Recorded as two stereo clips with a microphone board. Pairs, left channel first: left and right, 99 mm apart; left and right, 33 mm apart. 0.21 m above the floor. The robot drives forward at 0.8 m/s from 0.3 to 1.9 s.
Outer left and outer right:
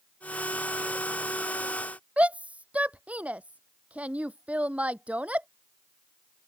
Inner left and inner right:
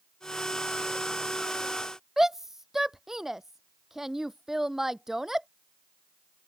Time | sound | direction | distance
2.2 | a shout | 15° right (ahead or behind) | ?